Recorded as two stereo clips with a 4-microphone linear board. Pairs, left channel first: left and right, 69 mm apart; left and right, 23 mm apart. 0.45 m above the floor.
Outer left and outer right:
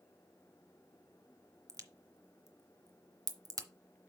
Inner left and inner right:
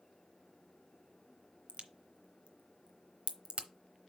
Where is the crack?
60° right (ahead or behind), 0.8 m.